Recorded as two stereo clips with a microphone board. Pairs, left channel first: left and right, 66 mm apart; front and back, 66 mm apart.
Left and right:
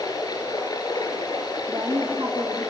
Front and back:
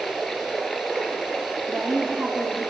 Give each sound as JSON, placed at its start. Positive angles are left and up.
{"t": 0.0, "sound": "running water", "azimuth_deg": 80, "distance_m": 3.5}
{"t": 1.7, "sound": "a woman speaking", "azimuth_deg": -75, "distance_m": 4.5}